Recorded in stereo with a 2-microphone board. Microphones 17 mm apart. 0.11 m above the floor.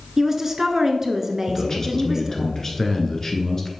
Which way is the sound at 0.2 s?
30° right (ahead or behind).